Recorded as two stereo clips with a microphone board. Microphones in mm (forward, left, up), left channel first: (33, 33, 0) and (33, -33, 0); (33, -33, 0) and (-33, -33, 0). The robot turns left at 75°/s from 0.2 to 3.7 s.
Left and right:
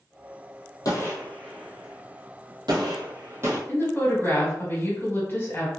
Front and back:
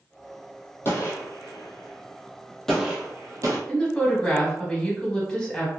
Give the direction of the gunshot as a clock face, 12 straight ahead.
10 o'clock.